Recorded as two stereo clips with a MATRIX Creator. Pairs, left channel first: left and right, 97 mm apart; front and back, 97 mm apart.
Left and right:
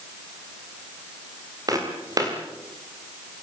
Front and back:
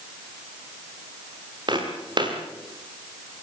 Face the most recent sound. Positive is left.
turn(degrees=-140)